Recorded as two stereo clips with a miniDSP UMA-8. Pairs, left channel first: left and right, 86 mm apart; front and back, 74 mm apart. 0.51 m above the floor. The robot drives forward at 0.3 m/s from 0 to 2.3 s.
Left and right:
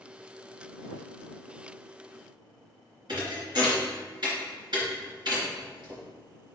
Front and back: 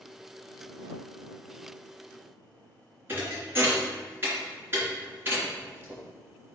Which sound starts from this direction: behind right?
A thud, at 3.1 s.